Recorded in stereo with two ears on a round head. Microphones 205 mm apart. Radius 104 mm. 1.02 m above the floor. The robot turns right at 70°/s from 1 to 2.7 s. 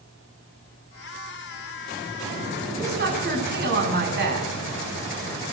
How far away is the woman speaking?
About 9 m.